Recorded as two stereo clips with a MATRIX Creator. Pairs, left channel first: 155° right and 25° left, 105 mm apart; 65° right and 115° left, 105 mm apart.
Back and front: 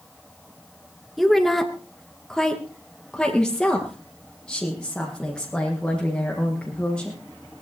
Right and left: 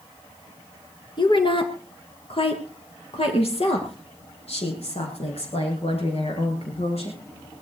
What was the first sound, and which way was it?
A woman speaking, 65° right.